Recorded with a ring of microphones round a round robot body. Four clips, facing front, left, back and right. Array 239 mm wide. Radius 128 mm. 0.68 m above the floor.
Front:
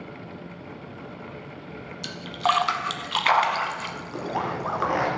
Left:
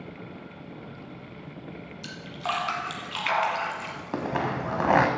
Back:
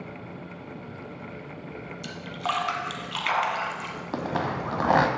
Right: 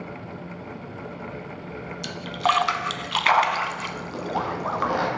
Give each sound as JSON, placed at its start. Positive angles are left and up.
{"t": 2.0, "sound": "a splash", "azimuth_deg": -55, "distance_m": 1.0}
{"t": 4.1, "sound": "a zipper", "azimuth_deg": 135, "distance_m": 1.3}